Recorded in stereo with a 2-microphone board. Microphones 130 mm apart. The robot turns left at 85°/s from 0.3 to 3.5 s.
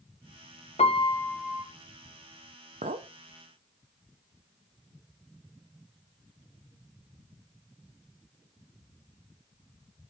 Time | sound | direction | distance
0.8 | a piano | 55° left | 0.6 m
2.8 | a clink | 80° right | 0.5 m